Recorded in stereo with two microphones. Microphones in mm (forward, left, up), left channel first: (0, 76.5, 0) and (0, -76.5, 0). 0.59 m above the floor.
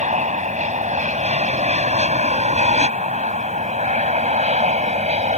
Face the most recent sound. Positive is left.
turn(degrees=-50)  # may be behind; listen again after turning